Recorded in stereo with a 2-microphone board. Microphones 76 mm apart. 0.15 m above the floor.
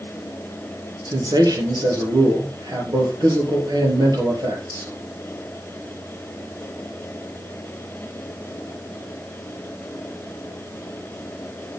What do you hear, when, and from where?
1.1 s a man speaking: 65° right (ahead or behind), 4 m